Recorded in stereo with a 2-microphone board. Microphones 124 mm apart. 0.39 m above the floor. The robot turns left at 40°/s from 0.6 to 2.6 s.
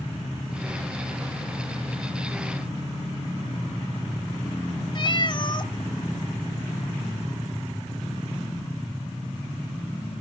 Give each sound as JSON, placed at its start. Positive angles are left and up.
{"t": 5.0, "sound": "a cat meowing", "side_deg": 40, "distance_m": 0.7}